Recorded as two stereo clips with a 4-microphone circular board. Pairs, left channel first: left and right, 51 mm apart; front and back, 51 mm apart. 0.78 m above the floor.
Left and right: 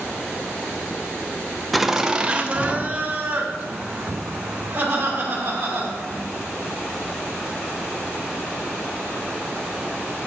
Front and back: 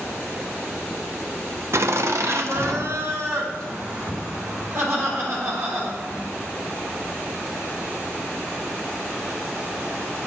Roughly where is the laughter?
Behind.